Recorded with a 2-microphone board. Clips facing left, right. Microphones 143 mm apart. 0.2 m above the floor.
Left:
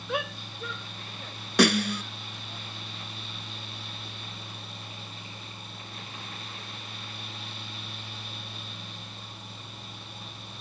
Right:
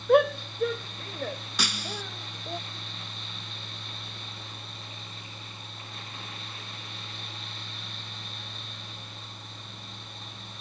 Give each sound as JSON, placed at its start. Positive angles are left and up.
{"t": 0.1, "sound": "a shout", "side_deg": -55}
{"t": 1.6, "sound": "a snare drum", "side_deg": 65}